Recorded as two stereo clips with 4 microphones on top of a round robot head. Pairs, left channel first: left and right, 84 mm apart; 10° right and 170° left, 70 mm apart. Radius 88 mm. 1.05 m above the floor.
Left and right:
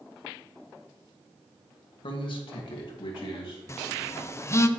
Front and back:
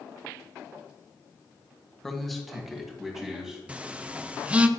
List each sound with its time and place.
2.0 s a man speaking: 75° left, 1.7 m; by 3.6 s 90° left, 3 m
3.7 s a phone buzzing: 110° left, 0.7 m